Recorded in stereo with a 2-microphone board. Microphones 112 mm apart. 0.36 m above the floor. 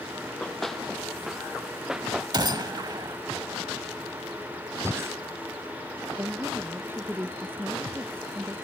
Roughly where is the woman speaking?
Centre.